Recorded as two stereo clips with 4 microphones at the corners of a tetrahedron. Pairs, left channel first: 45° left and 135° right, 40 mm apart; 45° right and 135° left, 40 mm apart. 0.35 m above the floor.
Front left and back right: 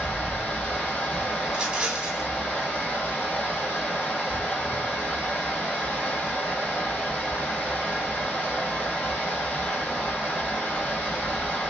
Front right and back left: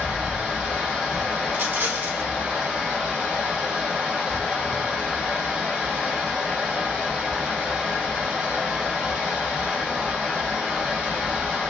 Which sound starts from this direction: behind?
A rattle, at 1.5 s.